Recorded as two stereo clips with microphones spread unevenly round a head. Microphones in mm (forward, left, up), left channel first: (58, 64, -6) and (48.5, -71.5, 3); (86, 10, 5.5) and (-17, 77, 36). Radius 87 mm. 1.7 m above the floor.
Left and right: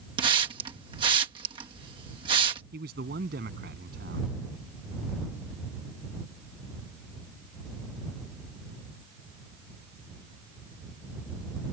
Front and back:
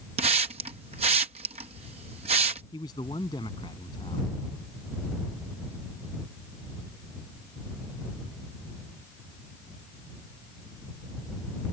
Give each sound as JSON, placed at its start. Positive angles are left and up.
{"t": 0.2, "sound": "a hiss", "azimuth_deg": -160}
{"t": 2.7, "sound": "a man speaking", "azimuth_deg": -105}